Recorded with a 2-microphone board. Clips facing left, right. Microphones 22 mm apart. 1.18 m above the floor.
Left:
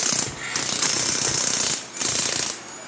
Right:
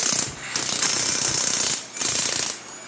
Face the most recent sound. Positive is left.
turn(degrees=35)  # may be behind; listen again after turning